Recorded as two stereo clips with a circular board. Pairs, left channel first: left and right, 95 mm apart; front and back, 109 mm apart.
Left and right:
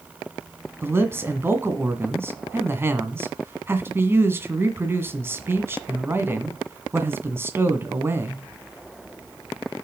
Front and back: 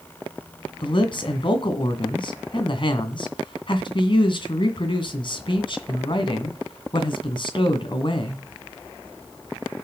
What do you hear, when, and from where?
0.8 s a man speaking: 30° right, 2 m